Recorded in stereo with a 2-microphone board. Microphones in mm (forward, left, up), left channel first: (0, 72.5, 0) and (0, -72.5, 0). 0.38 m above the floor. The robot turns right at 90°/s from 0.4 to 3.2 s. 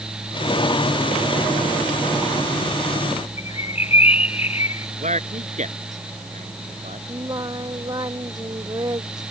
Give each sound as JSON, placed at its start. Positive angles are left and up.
{"t": 3.4, "sound": "a bird", "side_deg": 50}
{"t": 5.0, "sound": "a man speaking", "side_deg": -60}
{"t": 7.1, "sound": "singing", "side_deg": -30}